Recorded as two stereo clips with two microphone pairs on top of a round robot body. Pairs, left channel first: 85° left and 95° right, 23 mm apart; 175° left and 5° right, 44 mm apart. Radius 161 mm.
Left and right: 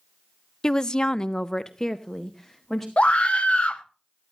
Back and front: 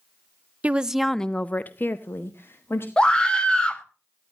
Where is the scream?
110° left, 1.6 m.